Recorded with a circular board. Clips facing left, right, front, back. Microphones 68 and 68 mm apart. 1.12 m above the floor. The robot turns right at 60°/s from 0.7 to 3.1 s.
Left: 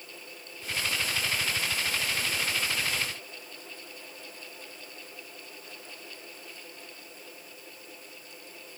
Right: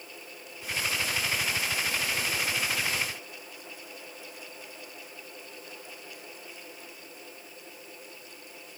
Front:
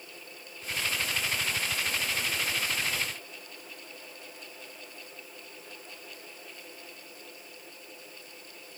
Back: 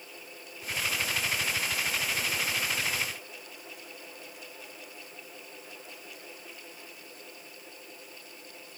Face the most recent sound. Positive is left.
No sound to turn to.